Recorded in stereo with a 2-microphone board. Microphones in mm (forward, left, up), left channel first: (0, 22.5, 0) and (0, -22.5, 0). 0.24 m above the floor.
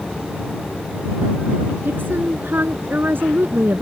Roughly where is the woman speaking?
Right.